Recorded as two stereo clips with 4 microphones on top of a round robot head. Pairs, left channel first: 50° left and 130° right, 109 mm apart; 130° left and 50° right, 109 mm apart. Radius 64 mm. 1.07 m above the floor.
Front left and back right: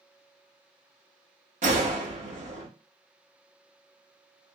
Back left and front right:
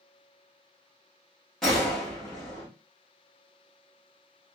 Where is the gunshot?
145° right, 1.3 m.